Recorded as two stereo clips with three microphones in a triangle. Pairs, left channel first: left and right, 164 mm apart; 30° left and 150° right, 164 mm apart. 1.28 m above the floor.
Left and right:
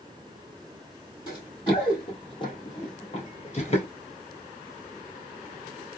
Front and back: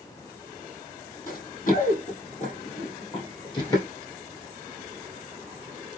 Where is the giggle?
I don't hear a giggle.